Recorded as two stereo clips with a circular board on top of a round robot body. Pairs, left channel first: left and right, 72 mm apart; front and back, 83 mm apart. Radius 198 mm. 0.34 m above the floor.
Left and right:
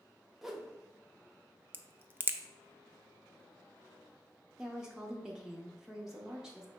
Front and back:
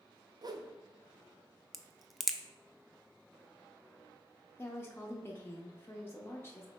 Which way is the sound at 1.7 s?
90° right.